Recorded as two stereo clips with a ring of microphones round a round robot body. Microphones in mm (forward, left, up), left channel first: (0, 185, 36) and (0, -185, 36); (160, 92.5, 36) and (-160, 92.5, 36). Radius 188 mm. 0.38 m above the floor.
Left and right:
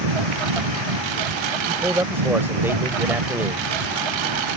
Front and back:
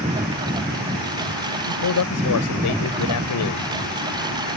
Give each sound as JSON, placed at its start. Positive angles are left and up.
{"t": 0.0, "sound": "a lawn mower", "azimuth_deg": -100}
{"t": 1.7, "sound": "a man speaking", "azimuth_deg": -5}